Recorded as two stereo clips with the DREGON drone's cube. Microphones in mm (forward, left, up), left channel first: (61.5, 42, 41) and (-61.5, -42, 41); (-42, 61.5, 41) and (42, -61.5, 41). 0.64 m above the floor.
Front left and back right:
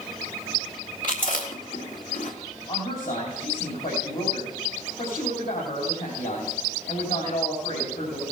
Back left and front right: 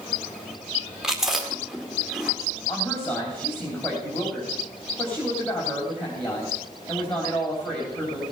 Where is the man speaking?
40° left, 3.5 m.